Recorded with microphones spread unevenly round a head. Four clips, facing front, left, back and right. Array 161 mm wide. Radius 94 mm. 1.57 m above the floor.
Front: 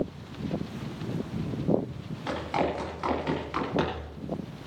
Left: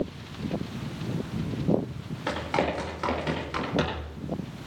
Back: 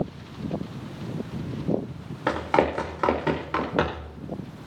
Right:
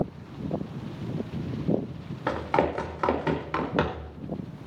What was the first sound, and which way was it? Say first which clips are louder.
Running footsteps: right 2 dB, back 6 dB; 165° right.